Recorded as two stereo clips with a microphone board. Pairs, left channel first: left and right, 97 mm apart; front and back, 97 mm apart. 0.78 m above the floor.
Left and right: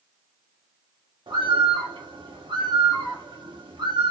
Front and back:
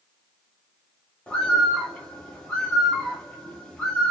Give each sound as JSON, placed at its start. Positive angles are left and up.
{"t": 1.3, "sound": "a bird", "azimuth_deg": -80, "distance_m": 1.1}